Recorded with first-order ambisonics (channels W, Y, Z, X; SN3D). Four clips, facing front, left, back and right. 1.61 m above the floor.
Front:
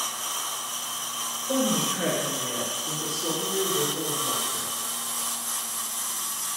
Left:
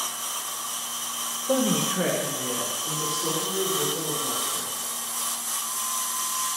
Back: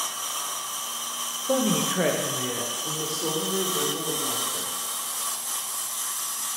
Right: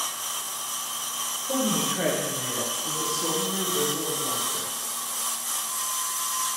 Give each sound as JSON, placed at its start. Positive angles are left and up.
{"t": 1.5, "sound": "a woman speaking", "azimuth_deg": 130, "distance_m": 0.5}